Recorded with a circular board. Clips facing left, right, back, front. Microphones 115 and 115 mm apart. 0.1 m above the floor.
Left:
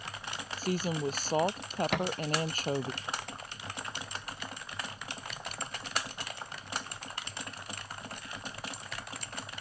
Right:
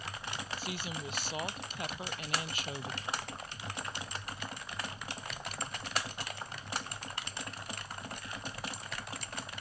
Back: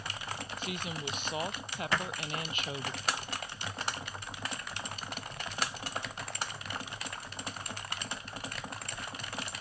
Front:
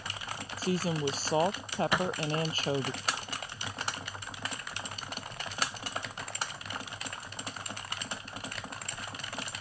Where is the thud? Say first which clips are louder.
Left 12 dB, front 2 dB; 75° left.